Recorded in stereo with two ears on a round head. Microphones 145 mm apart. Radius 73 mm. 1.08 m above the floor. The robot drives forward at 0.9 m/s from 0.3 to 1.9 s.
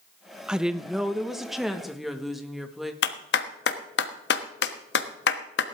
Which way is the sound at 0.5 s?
5° right (ahead or behind).